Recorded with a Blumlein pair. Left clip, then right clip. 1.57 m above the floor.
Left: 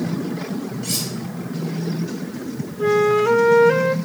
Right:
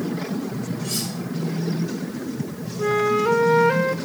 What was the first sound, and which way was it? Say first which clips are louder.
Cutlery clinking: left 3 dB; 65° left.